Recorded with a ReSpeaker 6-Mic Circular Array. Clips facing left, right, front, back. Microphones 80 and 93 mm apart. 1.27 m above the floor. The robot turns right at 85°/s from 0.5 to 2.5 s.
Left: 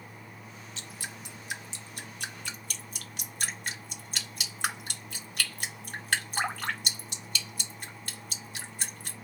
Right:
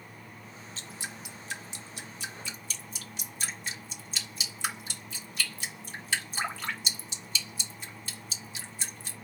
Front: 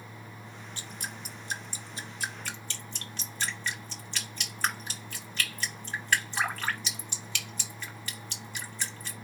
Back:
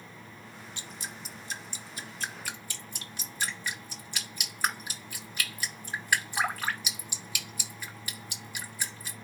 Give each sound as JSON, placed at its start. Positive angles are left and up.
{"t": 0.8, "sound": "dripping", "azimuth_deg": -45, "distance_m": 1.2}